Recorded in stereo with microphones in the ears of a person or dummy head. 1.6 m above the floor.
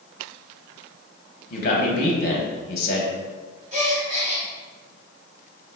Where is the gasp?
40° right (ahead or behind), 0.9 m.